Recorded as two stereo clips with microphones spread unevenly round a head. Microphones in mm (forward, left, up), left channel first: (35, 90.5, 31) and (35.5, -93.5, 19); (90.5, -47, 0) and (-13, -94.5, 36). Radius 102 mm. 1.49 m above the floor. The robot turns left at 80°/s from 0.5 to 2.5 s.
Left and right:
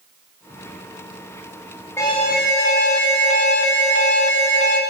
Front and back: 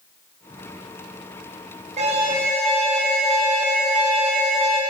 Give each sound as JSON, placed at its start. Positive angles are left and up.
{"t": 2.0, "sound": "an alarm", "azimuth_deg": 170, "distance_m": 1.2}